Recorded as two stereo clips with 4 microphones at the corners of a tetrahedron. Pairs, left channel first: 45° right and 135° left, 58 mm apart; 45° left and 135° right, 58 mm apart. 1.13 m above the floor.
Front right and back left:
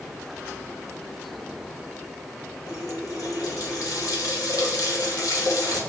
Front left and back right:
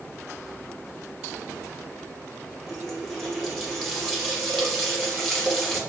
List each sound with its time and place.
2.7 s a running tap: 40° right, 1.3 m